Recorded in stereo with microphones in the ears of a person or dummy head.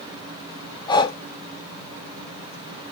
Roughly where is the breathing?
Left.